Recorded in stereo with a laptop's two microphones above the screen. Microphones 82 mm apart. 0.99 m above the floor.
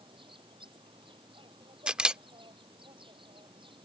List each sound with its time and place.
0.0 s an insect: 75° right (ahead or behind)
1.9 s a camera shutter: 10° right (ahead or behind)